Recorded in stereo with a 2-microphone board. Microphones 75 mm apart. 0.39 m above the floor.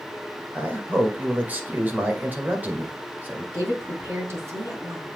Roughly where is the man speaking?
Right.